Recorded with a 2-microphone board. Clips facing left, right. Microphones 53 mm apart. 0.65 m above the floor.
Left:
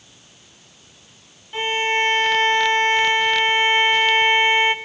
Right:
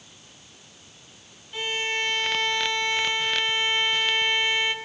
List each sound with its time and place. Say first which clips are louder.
1.5 s a violin: left 7 dB; 30° left (ahead or behind), 0.7 m